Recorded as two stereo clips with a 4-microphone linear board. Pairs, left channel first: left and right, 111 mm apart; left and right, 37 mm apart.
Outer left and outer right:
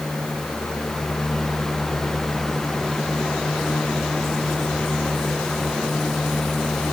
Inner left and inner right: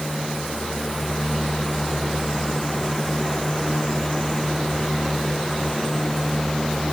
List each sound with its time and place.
Only background noise.